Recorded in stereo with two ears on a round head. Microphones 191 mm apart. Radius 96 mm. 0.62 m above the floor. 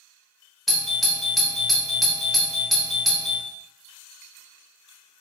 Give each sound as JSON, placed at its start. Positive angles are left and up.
{"t": 0.7, "sound": "a doorbell", "side_deg": 0, "distance_m": 1.0}